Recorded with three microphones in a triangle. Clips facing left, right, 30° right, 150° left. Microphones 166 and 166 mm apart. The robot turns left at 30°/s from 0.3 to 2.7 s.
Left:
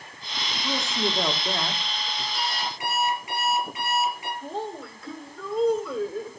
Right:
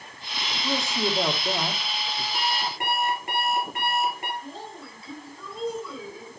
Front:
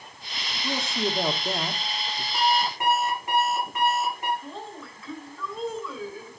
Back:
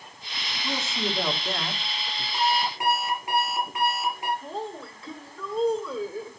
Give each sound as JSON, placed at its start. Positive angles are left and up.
{"t": 0.6, "sound": "a man speaking", "azimuth_deg": 5, "distance_m": 1.2}
{"t": 2.3, "sound": "an alarm clock", "azimuth_deg": -110, "distance_m": 5.0}
{"t": 4.4, "sound": "a woman speaking", "azimuth_deg": 100, "distance_m": 2.0}